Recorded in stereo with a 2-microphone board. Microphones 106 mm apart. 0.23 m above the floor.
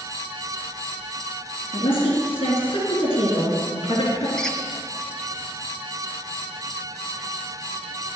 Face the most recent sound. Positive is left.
turn(degrees=5)  # may be behind; listen again after turning